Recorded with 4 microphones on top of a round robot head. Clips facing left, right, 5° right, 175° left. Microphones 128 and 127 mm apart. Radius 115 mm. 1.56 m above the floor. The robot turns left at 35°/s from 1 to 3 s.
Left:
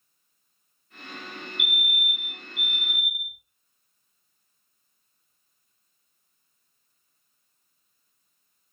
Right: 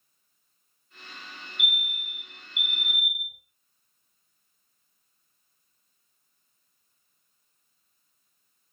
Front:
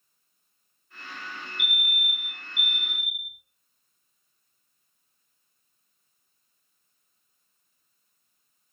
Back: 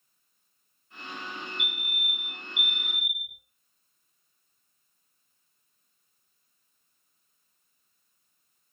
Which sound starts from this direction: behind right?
A fire alarm, at 1.6 s.